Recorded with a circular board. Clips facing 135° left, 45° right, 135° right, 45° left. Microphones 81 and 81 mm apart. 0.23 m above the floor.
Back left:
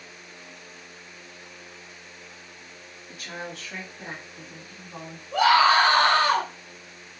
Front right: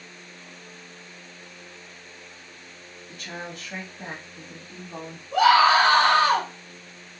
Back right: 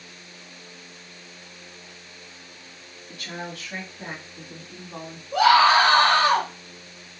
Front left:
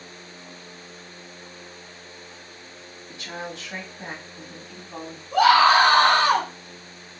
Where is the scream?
30° left, 1.5 m.